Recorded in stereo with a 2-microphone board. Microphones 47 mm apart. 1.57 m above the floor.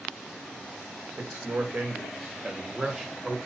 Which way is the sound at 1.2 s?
70° right (ahead or behind).